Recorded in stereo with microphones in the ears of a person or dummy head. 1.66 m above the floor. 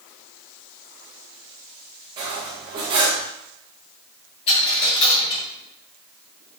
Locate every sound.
2.2 s cutlery clinking: 25° right (ahead or behind), 1.1 m
4.5 s a dropped coin: 35° left (ahead or behind), 1.7 m